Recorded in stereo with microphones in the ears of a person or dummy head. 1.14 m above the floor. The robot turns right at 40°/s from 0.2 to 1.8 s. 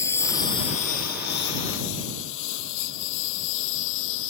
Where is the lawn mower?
10° left (ahead or behind); by 4.3 s 75° left (ahead or behind).